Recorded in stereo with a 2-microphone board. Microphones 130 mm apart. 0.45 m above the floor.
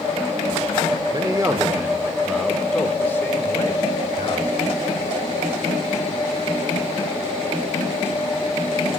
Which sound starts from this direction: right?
A man speaking, at 1.1 s.